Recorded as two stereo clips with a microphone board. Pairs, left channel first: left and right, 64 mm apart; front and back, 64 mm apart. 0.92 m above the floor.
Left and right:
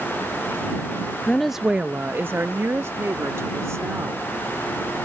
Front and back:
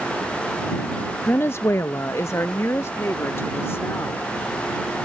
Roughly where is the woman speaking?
Ahead left.